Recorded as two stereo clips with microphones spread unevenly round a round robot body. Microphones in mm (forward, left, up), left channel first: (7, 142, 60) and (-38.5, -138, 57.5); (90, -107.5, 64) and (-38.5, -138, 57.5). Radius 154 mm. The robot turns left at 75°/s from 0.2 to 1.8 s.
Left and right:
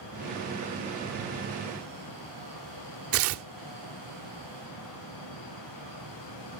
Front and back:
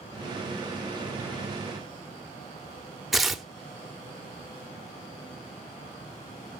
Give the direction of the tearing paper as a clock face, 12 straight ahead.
3 o'clock.